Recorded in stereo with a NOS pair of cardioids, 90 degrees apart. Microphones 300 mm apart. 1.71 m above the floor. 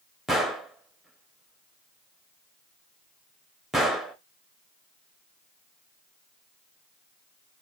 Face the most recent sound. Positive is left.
turn(degrees=0)